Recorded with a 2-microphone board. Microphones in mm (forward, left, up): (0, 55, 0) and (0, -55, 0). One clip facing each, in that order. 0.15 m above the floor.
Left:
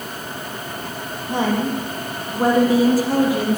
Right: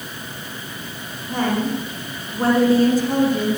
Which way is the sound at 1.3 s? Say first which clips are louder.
Left 1 dB; 25° left (ahead or behind).